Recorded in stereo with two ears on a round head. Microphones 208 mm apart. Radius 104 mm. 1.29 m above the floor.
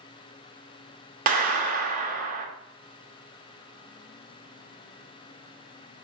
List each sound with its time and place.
1.3 s a clap: 40° right (ahead or behind), 1.0 m